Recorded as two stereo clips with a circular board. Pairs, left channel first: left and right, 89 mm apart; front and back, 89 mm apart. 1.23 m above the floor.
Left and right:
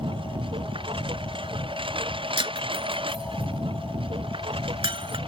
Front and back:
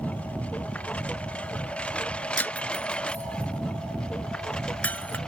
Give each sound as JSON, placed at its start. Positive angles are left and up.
{"t": 0.0, "sound": "a lawn mower", "azimuth_deg": -75}
{"t": 2.4, "sound": "breaking glass", "azimuth_deg": -70}